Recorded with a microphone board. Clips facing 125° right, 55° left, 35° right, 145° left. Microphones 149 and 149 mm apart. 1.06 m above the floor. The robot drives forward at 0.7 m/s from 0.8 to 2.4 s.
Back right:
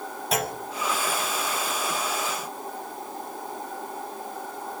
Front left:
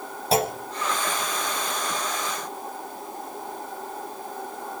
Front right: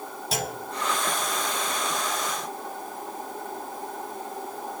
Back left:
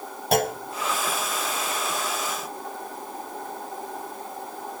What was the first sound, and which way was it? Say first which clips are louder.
A clunk: front left 5 dB, back left 9 dB; 115° left.